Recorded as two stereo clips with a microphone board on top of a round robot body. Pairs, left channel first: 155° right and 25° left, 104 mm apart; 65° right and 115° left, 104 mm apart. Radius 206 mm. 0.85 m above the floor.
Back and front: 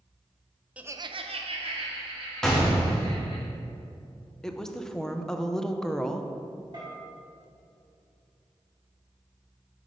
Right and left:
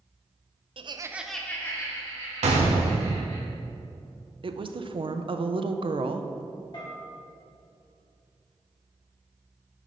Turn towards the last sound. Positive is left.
turn(degrees=-25)